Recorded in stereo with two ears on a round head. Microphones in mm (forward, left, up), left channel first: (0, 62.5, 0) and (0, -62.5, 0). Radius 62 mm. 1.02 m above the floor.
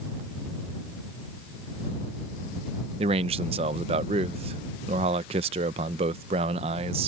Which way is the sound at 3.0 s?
45° right (ahead or behind).